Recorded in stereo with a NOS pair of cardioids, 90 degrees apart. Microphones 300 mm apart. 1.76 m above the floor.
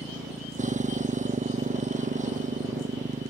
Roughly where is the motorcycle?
Ahead right.